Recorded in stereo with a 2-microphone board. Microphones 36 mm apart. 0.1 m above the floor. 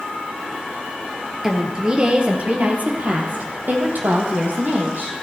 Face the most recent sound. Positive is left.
turn(degrees=-70)  # may be behind; listen again after turning